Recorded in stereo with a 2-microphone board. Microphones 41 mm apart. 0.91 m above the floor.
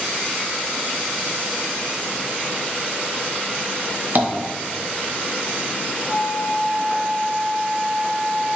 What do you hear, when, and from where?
4.2 s tapping: 45° right (ahead or behind), 0.5 m
6.1 s a flute: 50° left (ahead or behind), 1.3 m